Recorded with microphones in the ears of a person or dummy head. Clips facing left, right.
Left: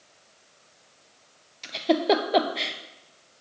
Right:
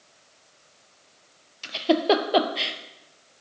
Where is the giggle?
5° right (ahead or behind), 0.6 m.